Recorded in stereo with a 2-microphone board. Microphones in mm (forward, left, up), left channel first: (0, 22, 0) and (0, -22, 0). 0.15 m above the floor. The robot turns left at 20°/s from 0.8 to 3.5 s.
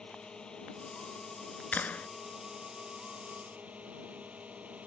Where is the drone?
20° left; by 4.9 s 35° right.